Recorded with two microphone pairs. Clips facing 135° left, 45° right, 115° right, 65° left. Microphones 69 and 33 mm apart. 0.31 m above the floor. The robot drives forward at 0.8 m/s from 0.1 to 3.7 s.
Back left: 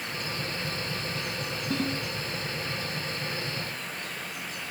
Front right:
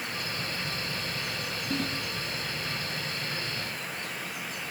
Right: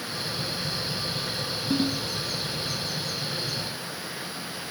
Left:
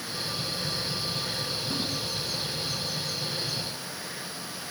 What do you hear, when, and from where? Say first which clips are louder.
1.7 s a ringtone: back left 2 dB, right 5 dB; 150° right, 3 m